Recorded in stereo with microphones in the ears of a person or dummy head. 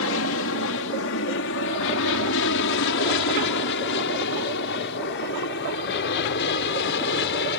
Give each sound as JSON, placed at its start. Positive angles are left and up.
{"t": 0.0, "sound": "an aircraft", "side_deg": 65}